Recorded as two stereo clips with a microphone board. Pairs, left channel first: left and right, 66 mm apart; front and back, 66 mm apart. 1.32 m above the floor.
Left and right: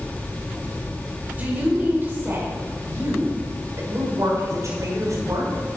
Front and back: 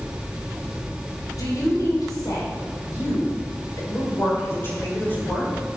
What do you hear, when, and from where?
1.4 s a woman speaking: 25° right, 6.5 m; by 5.5 s 60° right, 6.5 m